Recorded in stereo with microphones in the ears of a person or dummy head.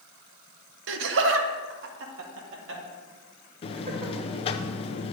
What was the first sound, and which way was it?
Laughter, 70° right (ahead or behind).